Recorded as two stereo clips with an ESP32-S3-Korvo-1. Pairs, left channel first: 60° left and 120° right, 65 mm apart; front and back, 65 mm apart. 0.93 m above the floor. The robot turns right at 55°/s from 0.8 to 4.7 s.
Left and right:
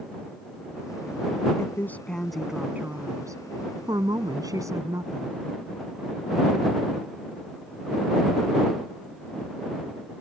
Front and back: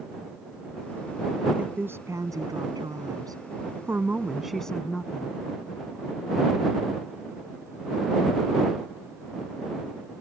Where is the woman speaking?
110° left; by 5.4 s 80° right.